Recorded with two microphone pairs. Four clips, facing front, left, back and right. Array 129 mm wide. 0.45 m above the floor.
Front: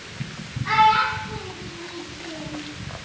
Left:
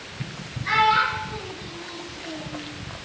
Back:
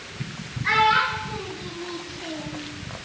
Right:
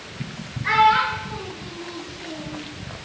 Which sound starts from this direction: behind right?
A child speaking, at 0.6 s.